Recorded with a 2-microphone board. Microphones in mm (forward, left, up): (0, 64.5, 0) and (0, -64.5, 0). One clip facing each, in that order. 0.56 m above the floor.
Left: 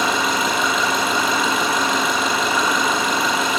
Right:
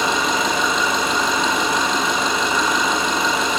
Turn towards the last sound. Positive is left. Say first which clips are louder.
# even
turn(degrees=5)  # may be behind; listen again after turning